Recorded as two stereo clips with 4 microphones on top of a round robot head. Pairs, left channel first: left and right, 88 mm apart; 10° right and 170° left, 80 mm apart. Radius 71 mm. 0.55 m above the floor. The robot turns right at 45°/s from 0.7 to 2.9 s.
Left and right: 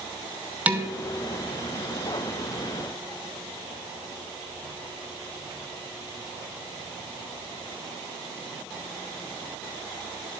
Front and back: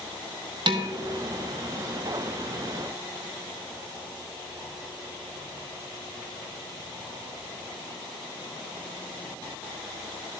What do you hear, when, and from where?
0.7 s dishes clattering: 160° right, 1.2 m; by 0.9 s 155° right, 1.2 m